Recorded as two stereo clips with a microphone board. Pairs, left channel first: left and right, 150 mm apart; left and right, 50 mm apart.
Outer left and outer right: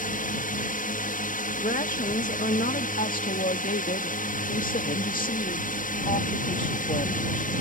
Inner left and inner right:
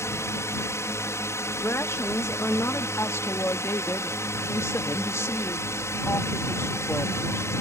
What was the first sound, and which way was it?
A drone, 65° left (ahead or behind).